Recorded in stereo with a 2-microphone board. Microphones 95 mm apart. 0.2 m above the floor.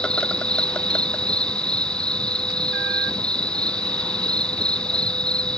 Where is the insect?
10° left (ahead or behind).